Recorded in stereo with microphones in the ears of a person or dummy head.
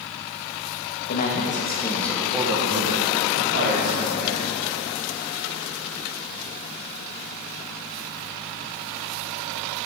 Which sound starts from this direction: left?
A man speaking, at 1.1 s.